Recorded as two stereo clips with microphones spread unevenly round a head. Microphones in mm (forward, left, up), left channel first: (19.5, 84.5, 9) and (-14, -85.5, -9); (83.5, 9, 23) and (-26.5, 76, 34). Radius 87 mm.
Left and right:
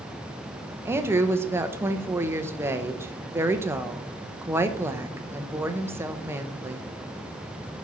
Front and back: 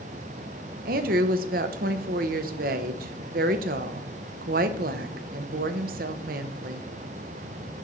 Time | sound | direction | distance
0.8 | a woman speaking | straight behind | 0.7 m